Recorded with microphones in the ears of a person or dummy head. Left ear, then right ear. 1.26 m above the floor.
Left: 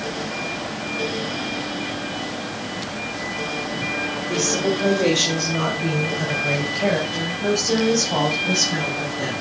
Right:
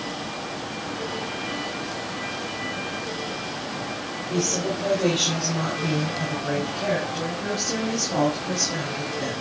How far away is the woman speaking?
About 2.5 m.